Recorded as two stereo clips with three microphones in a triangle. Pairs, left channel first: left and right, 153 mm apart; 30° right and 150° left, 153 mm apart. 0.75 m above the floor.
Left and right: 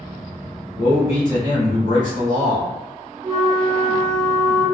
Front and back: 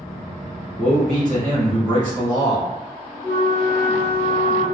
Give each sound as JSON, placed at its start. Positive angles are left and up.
{"t": 0.8, "sound": "a man speaking", "azimuth_deg": 55, "distance_m": 1.4}
{"t": 3.2, "sound": "a flute", "azimuth_deg": -90, "distance_m": 1.8}